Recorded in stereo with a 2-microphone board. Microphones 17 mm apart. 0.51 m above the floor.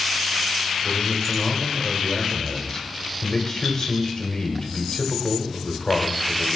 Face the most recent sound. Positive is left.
turn(degrees=45)  # may be behind; listen again after turning